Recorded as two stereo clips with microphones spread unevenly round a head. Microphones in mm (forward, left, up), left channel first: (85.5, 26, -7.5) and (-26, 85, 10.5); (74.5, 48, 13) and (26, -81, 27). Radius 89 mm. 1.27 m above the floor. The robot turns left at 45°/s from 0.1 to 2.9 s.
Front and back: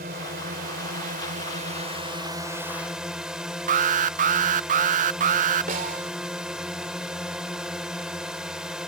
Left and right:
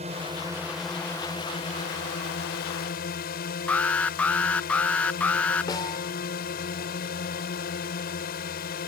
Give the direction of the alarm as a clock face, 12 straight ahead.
7 o'clock.